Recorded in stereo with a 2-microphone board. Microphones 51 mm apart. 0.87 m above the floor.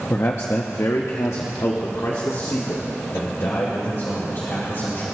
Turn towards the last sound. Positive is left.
turn(degrees=55)  # may be behind; listen again after turning